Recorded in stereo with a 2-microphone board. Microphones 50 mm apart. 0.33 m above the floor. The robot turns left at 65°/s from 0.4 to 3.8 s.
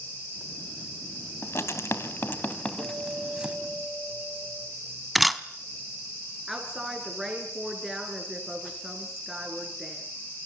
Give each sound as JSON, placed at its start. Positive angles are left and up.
{"t": 1.4, "sound": "writing", "side_deg": 60, "distance_m": 2.0}
{"t": 2.8, "sound": "a guitar", "azimuth_deg": -105, "distance_m": 5.5}
{"t": 5.2, "sound": "a camera shutter", "side_deg": 0, "distance_m": 0.9}
{"t": 6.5, "sound": "a woman speaking", "side_deg": -5, "distance_m": 4.0}